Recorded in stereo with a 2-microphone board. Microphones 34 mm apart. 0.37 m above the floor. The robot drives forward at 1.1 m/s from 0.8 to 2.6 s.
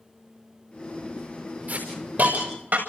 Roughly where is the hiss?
Right.